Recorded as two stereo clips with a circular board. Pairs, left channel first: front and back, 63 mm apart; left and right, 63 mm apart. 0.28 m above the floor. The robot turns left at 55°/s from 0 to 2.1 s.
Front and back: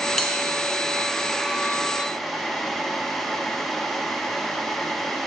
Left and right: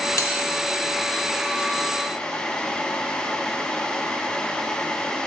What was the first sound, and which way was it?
A bell, 90° left.